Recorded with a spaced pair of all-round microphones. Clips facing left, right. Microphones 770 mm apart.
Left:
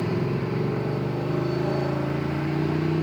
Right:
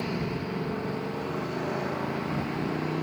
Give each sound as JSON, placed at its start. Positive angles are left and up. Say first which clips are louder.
{"t": 0.0, "sound": "a motorcycle", "louder": "left 5 dB", "side_deg": 65}